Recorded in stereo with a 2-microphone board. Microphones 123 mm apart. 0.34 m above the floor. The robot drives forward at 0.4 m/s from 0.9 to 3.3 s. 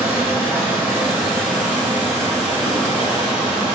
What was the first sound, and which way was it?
Running water, 20° right (ahead or behind).